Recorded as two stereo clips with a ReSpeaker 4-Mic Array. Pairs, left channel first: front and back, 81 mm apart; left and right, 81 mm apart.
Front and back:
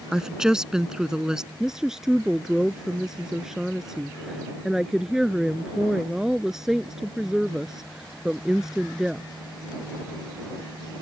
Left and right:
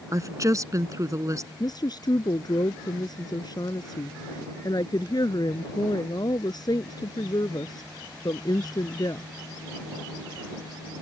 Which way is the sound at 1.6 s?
95° left.